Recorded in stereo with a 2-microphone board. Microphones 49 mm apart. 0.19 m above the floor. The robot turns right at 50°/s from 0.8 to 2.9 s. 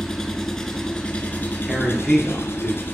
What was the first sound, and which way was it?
An engine running, 10° left.